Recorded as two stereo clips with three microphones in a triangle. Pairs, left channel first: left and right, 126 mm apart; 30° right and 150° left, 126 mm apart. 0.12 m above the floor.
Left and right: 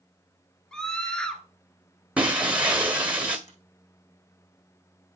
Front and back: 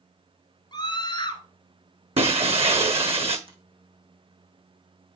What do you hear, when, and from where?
0.7 s a scream: 10° left, 2 m
2.2 s breaking glass: 170° right, 1.3 m
3.5 s a finger snap: 105° left, 4.5 m